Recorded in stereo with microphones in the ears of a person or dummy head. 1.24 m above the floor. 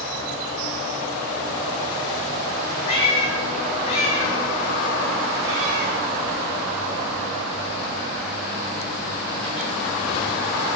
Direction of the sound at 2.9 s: 35° left (ahead or behind).